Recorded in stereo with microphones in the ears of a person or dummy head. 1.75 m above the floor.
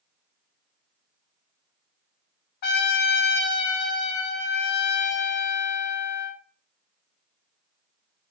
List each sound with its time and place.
2.6 s a trumpet: 55° left (ahead or behind), 0.6 m